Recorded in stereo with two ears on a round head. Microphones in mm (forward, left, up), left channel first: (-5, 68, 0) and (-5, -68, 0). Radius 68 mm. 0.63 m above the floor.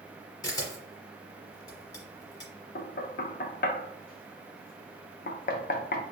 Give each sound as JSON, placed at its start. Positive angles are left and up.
{"t": 0.4, "sound": "a camera shutter", "side_deg": 25, "distance_m": 1.6}
{"t": 2.8, "sound": "knocking", "side_deg": 65, "distance_m": 0.5}